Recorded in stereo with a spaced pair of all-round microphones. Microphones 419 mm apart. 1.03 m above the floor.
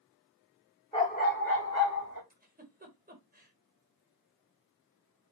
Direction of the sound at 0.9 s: 15° left (ahead or behind).